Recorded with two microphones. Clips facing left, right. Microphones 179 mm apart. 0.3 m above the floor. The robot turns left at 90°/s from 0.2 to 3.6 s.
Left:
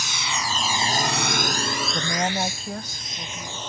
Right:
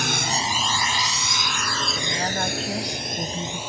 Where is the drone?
60° right (ahead or behind); by 3.7 s 10° right (ahead or behind).